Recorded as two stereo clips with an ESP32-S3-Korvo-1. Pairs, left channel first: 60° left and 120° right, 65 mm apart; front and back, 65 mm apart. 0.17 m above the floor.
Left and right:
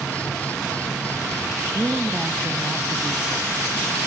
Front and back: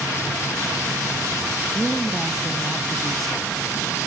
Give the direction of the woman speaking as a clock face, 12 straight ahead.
3 o'clock.